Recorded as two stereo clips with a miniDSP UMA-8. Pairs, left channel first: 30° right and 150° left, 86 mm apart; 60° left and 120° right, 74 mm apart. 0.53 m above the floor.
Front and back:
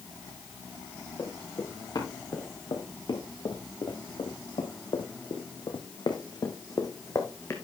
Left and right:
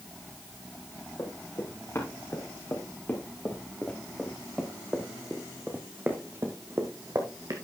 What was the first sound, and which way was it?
Running footsteps, 15° left.